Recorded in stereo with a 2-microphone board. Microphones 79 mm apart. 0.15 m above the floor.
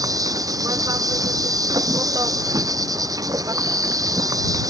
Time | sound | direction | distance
0.0 | an insect | 50° right (ahead or behind) | ?